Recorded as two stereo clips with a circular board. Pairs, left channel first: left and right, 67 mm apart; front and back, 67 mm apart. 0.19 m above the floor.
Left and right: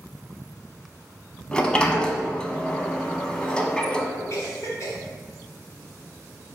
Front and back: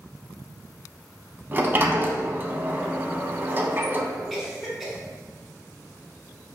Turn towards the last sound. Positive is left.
turn(degrees=95)